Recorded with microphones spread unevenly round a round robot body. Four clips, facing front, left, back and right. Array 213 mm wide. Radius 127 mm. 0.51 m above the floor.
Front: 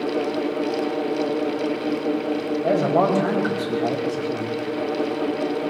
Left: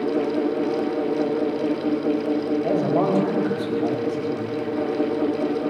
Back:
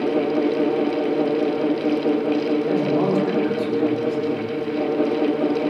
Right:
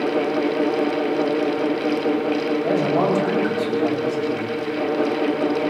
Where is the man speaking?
5° right, 3.5 m.